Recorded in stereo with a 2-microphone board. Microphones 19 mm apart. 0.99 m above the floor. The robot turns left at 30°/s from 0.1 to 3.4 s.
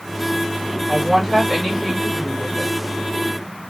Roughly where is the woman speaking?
Behind.